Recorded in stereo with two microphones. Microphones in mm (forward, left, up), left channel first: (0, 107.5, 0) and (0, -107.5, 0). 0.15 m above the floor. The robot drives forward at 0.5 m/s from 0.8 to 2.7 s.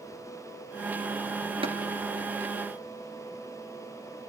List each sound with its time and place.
1.6 s tapping: 25° right (ahead or behind), 1.8 m